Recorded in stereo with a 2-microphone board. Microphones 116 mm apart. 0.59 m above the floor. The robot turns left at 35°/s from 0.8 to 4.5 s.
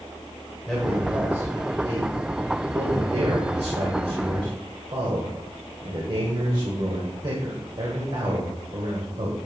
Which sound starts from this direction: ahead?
A man speaking, at 0.7 s.